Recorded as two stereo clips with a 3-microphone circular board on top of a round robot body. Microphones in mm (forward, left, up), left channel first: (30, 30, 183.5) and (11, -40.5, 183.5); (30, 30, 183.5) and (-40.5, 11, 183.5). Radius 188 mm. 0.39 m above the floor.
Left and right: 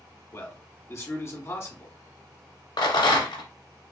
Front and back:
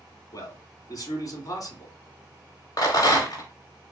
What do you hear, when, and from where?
0.3 s a man speaking: 30° left, 2 m
2.8 s a rattle: 50° left, 1.0 m